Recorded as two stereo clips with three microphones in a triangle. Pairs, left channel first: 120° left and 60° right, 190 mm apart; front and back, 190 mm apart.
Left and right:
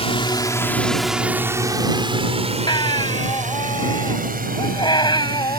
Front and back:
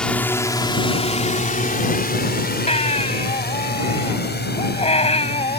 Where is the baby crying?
55° left.